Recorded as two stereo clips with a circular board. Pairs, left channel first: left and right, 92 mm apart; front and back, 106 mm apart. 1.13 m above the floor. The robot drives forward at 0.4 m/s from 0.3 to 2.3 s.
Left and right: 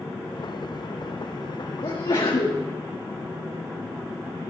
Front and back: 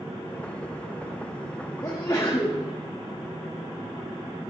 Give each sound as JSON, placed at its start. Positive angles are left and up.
{"t": 1.8, "sound": "a sneeze", "azimuth_deg": 55, "distance_m": 1.9}